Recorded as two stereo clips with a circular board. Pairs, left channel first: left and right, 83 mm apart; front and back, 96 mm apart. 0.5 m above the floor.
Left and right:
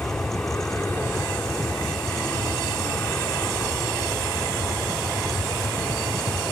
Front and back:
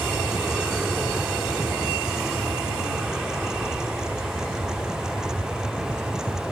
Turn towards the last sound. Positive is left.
turn(degrees=105)